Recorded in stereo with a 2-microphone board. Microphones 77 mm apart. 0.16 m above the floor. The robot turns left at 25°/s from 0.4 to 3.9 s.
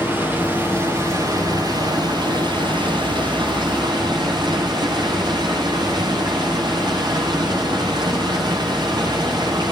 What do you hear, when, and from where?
0.0 s running water: 30° right, 9.5 m; by 9.7 s 120° right, 9.5 m